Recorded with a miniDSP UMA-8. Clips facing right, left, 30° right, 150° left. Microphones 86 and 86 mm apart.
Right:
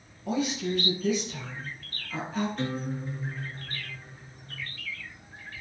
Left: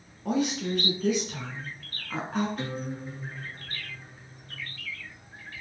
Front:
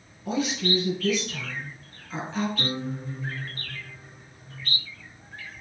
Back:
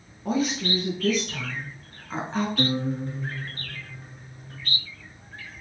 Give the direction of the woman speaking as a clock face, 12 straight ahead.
8 o'clock.